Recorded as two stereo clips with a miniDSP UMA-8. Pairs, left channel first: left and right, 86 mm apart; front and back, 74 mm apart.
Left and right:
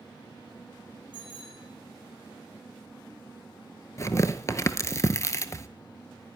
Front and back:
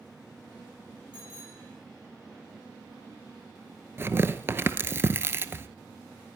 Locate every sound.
1.1 s a bicycle bell: 70° left, 4 m
4.0 s tearing paper: 135° left, 0.6 m